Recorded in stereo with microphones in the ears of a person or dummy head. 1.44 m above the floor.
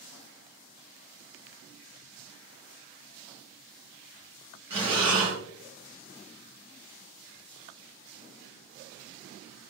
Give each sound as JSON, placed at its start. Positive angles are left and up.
{"t": 4.7, "sound": "breathing", "side_deg": -15, "distance_m": 0.9}